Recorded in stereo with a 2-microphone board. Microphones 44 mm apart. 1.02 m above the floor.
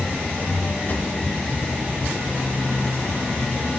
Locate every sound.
0.9 s a drawer: 40° left (ahead or behind), 1.0 m